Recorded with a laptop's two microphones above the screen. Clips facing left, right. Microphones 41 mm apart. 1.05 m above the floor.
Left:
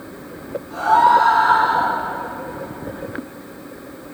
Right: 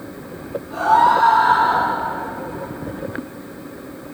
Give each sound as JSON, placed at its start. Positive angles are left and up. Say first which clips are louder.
{"t": 0.7, "sound": "a scream", "louder": "left 1 dB", "side_deg": -25, "distance_m": 2.0}